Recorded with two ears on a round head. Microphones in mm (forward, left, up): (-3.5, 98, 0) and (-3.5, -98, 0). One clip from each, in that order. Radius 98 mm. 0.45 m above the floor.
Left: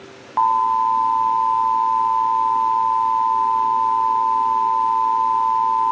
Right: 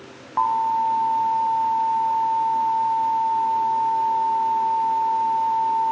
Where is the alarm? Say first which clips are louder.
Left 4 dB; 20° left (ahead or behind), 3 m.